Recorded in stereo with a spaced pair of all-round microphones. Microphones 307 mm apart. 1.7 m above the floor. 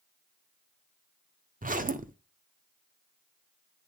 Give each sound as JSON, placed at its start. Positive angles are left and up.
{"t": 1.6, "sound": "a zipper", "side_deg": -25, "distance_m": 0.6}